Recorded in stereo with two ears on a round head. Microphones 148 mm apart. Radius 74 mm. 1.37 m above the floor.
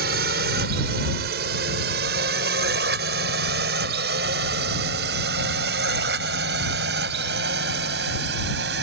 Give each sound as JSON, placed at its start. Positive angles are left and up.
{"t": 0.0, "sound": "a drone", "side_deg": -65}